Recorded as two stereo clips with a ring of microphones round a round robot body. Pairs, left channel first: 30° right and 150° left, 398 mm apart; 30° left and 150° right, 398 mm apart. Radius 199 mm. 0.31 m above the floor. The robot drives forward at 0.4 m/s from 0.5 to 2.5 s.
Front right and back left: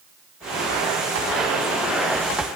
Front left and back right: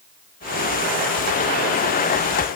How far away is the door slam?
No door slam in this recording.